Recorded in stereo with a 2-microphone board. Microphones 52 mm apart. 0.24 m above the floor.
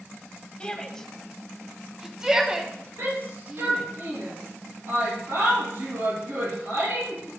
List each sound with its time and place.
0.6 s a shout: 20° left (ahead or behind), 1.3 m; by 3.9 s 30° right (ahead or behind), 2 m
3.0 s a shout: 65° right (ahead or behind), 4.5 m